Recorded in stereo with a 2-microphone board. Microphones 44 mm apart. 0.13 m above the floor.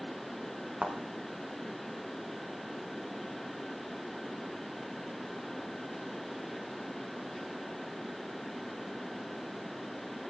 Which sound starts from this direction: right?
A thud, at 0.8 s.